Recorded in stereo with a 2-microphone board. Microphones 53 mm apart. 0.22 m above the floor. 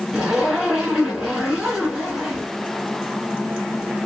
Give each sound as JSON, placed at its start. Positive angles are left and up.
{"t": 0.1, "sound": "a zipper", "side_deg": -15, "distance_m": 2.0}